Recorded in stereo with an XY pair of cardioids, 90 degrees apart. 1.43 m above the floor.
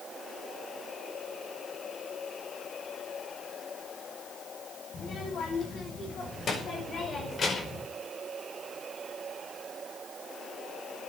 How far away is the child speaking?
About 8.5 m.